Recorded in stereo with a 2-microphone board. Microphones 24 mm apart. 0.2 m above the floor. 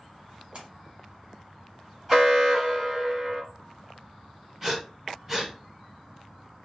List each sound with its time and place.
0.5 s a splash: 45° right (ahead or behind), 1.3 m
2.1 s an alarm: 20° right (ahead or behind), 1.5 m
4.6 s breathing: 15° right (ahead or behind), 1.1 m